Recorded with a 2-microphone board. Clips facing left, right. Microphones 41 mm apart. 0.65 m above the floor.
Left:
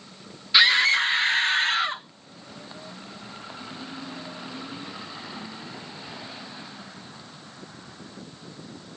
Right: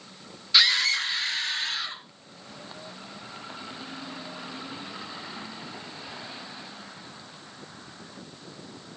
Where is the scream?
20° left (ahead or behind), 0.5 m; by 2.0 s 40° left (ahead or behind), 1.0 m.